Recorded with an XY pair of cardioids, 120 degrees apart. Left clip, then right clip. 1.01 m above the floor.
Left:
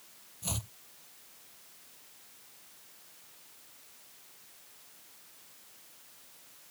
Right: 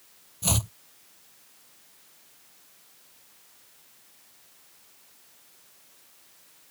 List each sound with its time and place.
0.4 s chopping: 55° right